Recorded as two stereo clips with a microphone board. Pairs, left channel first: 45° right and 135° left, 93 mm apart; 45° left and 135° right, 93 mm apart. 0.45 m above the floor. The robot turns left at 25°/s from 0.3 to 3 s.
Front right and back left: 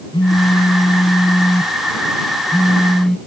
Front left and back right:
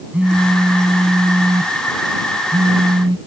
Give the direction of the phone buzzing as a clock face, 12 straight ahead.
2 o'clock.